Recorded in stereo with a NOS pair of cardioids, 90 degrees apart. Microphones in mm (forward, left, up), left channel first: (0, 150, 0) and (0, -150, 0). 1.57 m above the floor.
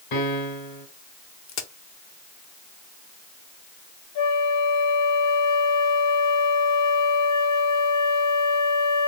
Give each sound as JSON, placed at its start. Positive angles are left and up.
{"t": 0.1, "sound": "a piano", "azimuth_deg": 70, "distance_m": 1.7}
{"t": 1.5, "sound": "a crack", "azimuth_deg": 65, "distance_m": 1.0}
{"t": 4.2, "sound": "a flute", "azimuth_deg": 65, "distance_m": 1.0}